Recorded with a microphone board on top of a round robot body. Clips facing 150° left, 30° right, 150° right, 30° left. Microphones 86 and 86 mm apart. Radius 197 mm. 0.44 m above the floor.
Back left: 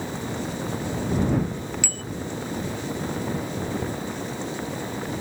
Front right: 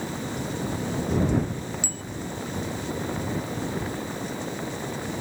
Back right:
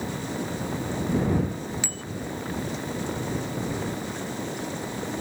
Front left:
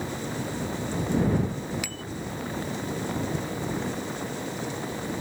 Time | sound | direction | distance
1.8 | a bicycle bell | 150° left | ?